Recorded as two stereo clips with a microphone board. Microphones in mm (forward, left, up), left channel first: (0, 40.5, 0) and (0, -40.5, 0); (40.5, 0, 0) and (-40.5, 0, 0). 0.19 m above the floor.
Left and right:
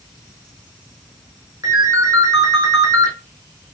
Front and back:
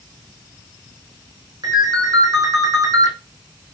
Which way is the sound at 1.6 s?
135° right.